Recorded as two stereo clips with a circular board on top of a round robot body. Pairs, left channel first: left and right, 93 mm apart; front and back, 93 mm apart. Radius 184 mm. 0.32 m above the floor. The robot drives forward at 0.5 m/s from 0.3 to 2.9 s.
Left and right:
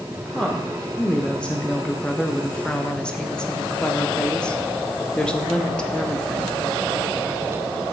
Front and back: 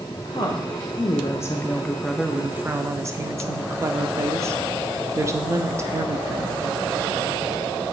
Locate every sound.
0.2 s a woman speaking: 10° left, 1.2 m; by 6.6 s 160° left, 0.9 m